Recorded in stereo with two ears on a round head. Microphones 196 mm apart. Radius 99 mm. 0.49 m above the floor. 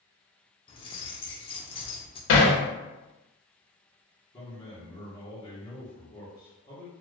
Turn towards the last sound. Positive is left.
turn(degrees=20)  # may be behind; listen again after turning